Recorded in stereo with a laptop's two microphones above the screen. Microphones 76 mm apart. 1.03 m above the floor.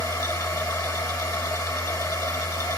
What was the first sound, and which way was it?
A machine running, 55° left (ahead or behind).